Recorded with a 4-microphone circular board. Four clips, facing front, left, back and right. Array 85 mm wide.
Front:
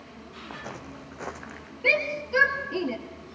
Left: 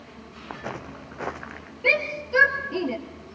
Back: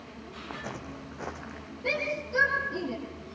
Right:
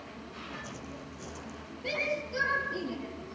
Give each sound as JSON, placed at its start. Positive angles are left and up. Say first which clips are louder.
{"t": 0.5, "sound": "footsteps", "louder": "left 10 dB, back 1 dB", "azimuth_deg": 95, "distance_m": 1.7}
{"t": 1.8, "sound": "a shout", "louder": "left 8 dB, front 5 dB", "azimuth_deg": 50, "distance_m": 3.0}